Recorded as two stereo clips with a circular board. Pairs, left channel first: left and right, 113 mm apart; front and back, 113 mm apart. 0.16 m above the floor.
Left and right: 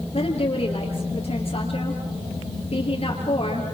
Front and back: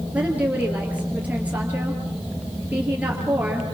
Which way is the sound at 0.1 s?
105° left.